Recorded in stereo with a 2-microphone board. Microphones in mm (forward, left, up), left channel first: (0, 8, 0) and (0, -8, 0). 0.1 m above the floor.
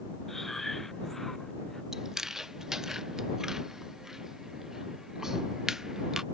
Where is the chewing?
35° right (ahead or behind).